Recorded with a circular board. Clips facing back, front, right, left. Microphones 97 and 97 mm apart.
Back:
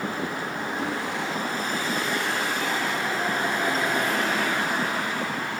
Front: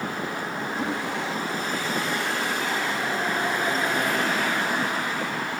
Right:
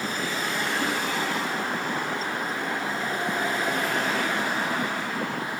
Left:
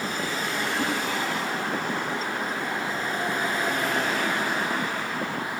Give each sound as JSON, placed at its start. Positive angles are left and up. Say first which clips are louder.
{"t": 0.8, "sound": "a whoosh", "louder": "front 2 dB, left 2 dB", "azimuth_deg": 90, "distance_m": 1.9}